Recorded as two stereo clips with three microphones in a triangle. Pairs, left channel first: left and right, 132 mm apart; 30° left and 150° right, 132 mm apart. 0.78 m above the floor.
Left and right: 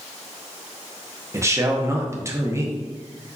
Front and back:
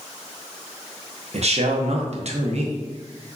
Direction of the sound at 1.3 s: 155° right.